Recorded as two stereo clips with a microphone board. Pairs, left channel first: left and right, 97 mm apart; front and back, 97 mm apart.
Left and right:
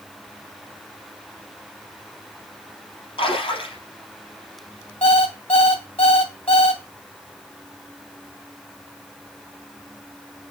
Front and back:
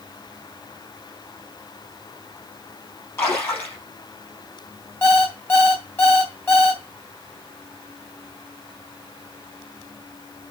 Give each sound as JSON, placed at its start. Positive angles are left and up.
{"t": 3.2, "sound": "a splash", "azimuth_deg": 65, "distance_m": 3.5}
{"t": 5.0, "sound": "an alarm clock", "azimuth_deg": 70, "distance_m": 2.5}